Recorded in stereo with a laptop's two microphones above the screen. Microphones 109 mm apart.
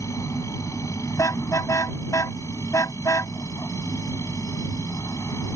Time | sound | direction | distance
0.0 | a machine running | 30° left (ahead or behind) | ?
1.2 | a car horn | 30° left (ahead or behind) | ?